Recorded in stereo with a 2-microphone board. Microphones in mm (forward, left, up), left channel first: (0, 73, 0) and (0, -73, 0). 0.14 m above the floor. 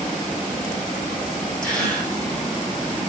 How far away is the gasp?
About 7 m.